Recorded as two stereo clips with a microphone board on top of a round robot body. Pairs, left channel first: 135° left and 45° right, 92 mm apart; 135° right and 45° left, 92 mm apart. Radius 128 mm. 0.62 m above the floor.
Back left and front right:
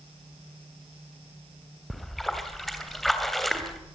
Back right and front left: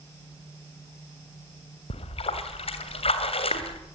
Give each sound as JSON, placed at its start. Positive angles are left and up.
{"t": 1.9, "sound": "a splash", "azimuth_deg": -140, "distance_m": 2.5}